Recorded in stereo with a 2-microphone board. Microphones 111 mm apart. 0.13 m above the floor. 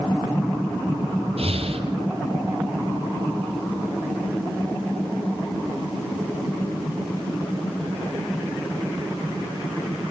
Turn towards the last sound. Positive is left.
turn(degrees=-70)  # may be behind; listen again after turning